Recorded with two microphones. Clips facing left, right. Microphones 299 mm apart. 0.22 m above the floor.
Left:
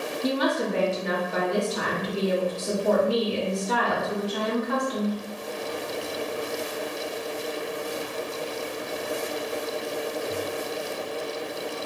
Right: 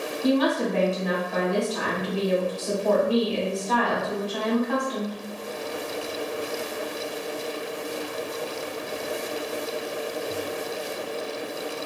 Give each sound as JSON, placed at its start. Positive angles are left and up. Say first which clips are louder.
{"t": 0.2, "sound": "a woman speaking", "louder": "right 4 dB", "side_deg": 30, "distance_m": 1.7}